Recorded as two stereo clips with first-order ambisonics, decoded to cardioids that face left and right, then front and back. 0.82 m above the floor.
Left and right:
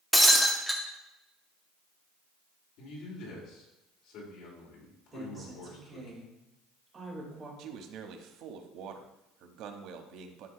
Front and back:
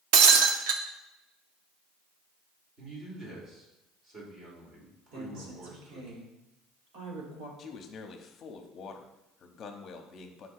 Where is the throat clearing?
No throat clearing in this recording.